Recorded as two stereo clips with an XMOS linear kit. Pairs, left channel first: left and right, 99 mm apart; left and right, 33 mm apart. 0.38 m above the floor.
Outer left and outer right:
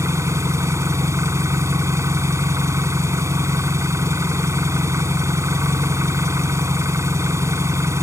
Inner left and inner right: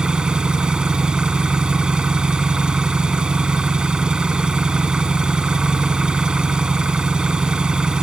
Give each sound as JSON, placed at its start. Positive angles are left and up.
{"t": 0.0, "sound": "an engine running", "side_deg": -30}